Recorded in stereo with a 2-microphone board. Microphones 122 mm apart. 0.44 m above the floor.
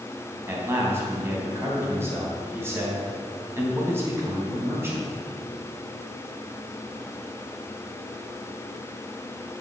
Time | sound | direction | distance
0.5 | a man speaking | 20° right (ahead or behind) | 3.5 m